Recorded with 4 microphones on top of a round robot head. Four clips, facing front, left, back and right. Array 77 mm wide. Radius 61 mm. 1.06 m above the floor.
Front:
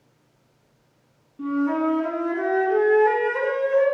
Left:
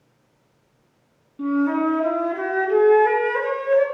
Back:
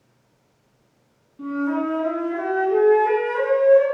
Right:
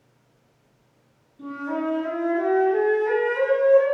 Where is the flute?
80° left, 1.7 m.